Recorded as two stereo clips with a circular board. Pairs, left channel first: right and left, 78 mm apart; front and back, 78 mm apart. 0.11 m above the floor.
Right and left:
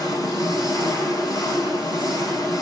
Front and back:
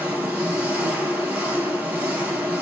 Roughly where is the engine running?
Behind right.